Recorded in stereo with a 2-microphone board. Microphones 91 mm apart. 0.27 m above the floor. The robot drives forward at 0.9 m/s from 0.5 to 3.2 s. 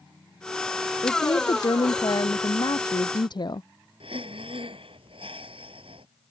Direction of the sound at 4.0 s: 80° right.